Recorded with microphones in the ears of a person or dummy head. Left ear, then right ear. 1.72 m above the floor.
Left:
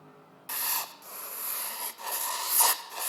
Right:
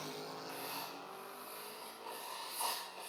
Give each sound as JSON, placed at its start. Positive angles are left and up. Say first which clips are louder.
{"t": 0.5, "sound": "writing", "louder": "left 14 dB", "side_deg": 50, "distance_m": 0.9}